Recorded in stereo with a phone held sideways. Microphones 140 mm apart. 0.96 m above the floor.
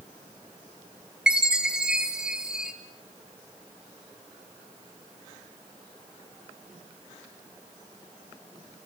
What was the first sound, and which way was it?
A chime, 5° right (ahead or behind).